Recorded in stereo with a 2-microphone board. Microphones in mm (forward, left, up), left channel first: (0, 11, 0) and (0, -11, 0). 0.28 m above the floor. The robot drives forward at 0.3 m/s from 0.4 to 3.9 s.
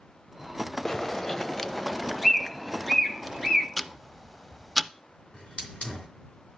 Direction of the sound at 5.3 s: 60° left (ahead or behind).